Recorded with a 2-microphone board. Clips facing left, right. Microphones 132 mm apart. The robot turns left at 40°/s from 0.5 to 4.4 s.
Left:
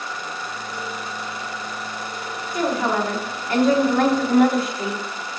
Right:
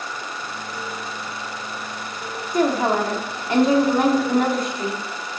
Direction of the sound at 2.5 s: 110° right.